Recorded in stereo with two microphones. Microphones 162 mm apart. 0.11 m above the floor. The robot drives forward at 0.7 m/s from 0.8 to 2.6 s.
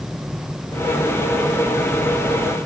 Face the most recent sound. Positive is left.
No sound to turn to.